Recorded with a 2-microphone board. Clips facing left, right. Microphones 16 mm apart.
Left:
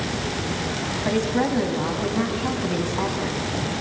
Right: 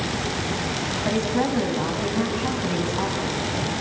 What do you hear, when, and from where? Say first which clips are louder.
1.1 s a woman speaking: left 1 dB; 5° left (ahead or behind), 3 m